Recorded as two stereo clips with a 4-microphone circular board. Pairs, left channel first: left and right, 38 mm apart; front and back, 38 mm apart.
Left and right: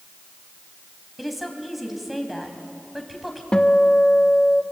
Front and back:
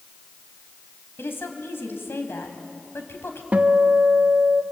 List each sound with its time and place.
1.2 s a woman speaking: 5° right, 3.5 m
3.5 s a guitar: 140° left, 1.2 m